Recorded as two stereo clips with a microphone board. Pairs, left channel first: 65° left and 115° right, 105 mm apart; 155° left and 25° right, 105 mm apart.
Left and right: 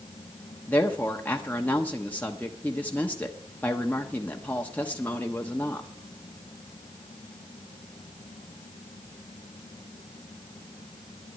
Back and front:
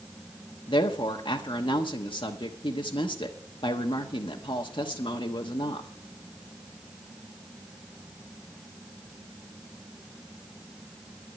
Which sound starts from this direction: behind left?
A woman speaking, at 0.7 s.